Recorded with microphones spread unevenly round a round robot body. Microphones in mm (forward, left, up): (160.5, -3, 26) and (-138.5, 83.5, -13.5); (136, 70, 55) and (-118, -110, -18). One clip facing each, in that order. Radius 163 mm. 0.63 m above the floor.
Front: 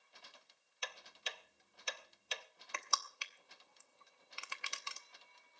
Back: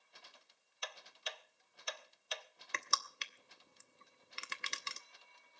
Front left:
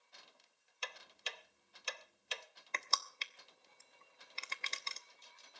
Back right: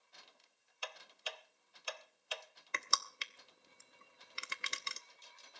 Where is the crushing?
170° right, 0.9 m.